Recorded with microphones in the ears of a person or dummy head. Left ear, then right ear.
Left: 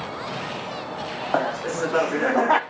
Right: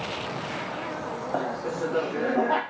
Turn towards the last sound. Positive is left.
turn(degrees=55)  # may be behind; listen again after turning